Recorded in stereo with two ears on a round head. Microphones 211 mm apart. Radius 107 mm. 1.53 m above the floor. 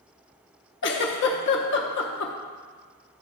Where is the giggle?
55° left (ahead or behind), 0.8 m.